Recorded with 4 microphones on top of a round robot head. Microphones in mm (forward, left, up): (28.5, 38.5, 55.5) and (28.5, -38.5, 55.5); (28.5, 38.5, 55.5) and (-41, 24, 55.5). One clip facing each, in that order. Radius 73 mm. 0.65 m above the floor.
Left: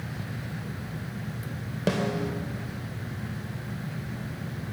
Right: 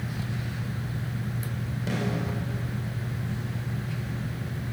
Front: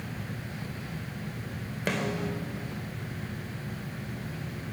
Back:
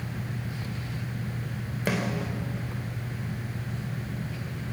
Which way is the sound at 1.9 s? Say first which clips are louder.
Left 4 dB, back 1 dB; 110° left.